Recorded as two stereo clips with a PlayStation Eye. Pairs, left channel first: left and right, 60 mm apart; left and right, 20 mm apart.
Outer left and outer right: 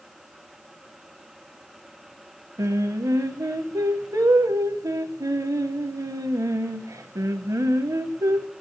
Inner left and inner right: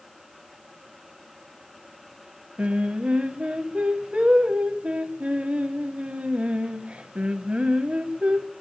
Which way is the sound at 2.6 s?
70° right (ahead or behind).